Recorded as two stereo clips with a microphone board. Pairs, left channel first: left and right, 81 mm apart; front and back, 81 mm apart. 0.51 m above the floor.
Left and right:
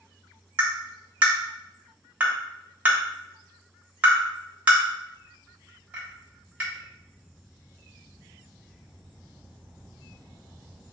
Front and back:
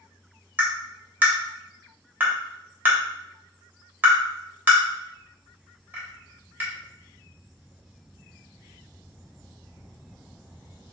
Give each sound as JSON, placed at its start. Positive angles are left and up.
{"t": 0.6, "sound": "tapping", "azimuth_deg": -140, "distance_m": 1.1}